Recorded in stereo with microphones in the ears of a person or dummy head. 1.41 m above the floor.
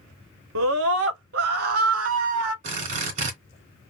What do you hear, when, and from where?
0.6 s a scream: 75° right (ahead or behind), 0.6 m; by 2.5 s 50° right (ahead or behind), 1.6 m
2.6 s a drill: 45° right (ahead or behind), 2.5 m